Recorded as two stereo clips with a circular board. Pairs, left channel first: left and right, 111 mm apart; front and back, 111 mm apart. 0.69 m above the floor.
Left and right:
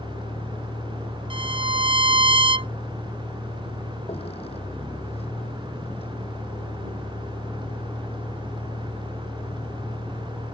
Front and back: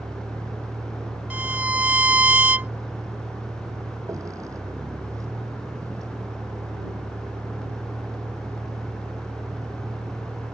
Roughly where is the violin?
Right.